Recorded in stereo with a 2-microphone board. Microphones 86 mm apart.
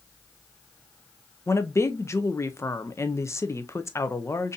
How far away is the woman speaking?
About 0.5 m.